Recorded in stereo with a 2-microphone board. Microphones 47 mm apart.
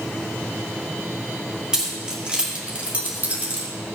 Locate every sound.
1.7 s keys jangling: 15° right (ahead or behind), 2 m; by 3.7 s 40° right (ahead or behind), 1.8 m